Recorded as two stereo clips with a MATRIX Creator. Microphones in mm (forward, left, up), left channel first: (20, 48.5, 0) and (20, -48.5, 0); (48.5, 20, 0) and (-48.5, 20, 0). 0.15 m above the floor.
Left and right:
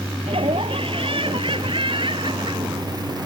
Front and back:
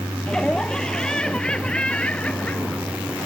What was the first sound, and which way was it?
Laughter, 85° right.